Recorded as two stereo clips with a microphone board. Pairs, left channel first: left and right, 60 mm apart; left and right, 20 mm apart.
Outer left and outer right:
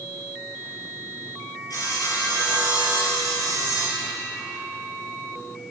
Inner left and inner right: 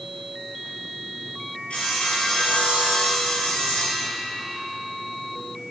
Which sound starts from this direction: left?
Sawing, at 1.7 s.